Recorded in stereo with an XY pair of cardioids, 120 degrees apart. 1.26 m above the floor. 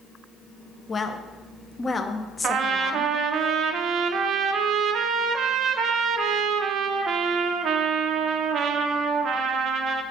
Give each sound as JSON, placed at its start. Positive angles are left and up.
{"t": 0.9, "sound": "a woman speaking", "azimuth_deg": 25, "distance_m": 1.0}
{"t": 2.4, "sound": "a trumpet", "azimuth_deg": -55, "distance_m": 0.7}